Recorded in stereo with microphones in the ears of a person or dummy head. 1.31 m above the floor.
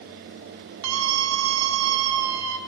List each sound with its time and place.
0.8 s a scream: 80° right, 2.5 m